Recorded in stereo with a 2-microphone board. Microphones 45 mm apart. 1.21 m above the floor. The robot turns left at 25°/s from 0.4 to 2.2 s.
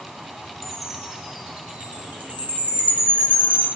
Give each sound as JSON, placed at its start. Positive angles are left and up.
{"t": 0.6, "sound": "a chime", "side_deg": 0, "distance_m": 2.0}